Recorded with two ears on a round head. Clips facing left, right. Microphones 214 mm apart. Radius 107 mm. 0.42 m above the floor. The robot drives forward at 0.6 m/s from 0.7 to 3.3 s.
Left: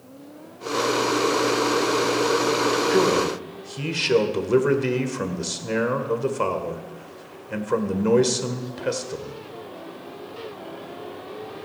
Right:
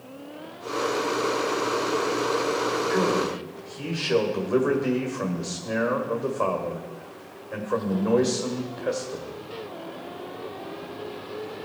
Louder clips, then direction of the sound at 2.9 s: Left 4 dB; 45° left (ahead or behind).